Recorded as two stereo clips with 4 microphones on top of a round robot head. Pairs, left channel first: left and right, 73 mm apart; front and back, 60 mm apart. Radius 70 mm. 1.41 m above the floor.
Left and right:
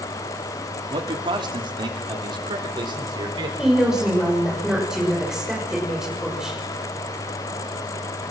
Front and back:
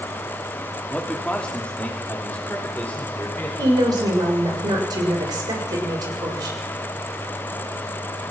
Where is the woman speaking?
175° right, 6.5 m.